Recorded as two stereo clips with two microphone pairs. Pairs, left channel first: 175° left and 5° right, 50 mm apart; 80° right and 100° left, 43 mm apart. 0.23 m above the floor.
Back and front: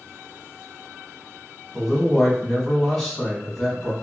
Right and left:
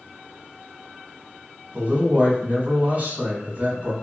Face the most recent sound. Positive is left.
turn(degrees=80)